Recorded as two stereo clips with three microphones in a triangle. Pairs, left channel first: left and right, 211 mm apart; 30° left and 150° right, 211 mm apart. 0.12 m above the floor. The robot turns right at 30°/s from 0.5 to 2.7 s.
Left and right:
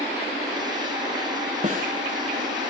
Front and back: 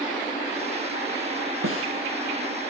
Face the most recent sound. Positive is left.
turn(degrees=-115)